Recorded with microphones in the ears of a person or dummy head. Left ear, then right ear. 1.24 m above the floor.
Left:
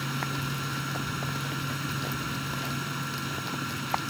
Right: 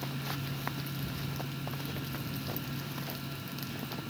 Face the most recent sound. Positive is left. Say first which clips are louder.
# left 7 dB
turn(degrees=50)  # may be behind; listen again after turning